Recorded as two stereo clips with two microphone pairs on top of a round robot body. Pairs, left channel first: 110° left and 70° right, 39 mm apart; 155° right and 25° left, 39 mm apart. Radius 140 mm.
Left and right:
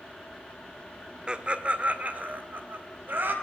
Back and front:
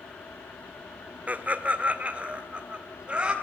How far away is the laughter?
About 1.8 m.